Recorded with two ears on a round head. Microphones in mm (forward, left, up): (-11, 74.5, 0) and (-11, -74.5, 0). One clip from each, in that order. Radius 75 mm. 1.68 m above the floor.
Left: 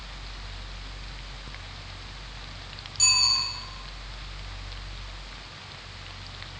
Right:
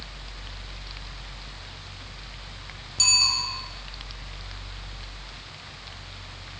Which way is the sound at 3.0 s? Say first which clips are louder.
Right 1 dB; 25° right (ahead or behind).